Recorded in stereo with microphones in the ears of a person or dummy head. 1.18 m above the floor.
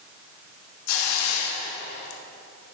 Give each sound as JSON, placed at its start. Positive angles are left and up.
{"t": 0.9, "sound": "a hiss", "side_deg": 85, "distance_m": 2.0}